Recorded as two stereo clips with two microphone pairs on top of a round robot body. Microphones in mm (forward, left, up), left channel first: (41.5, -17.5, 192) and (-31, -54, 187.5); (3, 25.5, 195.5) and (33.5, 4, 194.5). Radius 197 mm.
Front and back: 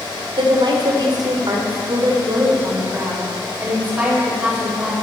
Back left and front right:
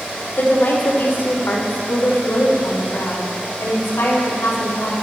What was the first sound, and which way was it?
A woman speaking, straight behind.